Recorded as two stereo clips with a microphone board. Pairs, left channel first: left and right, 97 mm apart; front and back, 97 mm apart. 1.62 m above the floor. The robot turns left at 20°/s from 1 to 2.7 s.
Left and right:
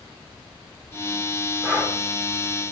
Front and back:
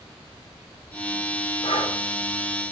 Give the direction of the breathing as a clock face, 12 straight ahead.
12 o'clock.